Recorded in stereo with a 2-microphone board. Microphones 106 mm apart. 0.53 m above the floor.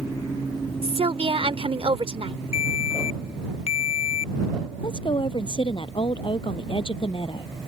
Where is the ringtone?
75° left (ahead or behind).